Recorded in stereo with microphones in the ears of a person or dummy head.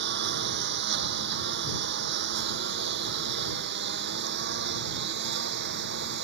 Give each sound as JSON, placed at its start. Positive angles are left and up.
{"t": 0.0, "sound": "a lawn mower", "side_deg": -55}